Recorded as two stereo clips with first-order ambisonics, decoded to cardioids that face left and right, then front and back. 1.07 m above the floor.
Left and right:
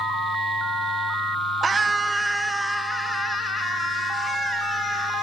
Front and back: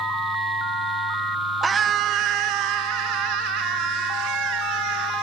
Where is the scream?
130° right, 0.7 m; by 5.2 s 175° left, 3.5 m.